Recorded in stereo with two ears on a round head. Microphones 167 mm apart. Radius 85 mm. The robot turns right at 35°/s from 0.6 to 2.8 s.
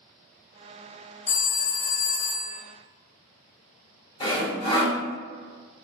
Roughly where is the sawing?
Left.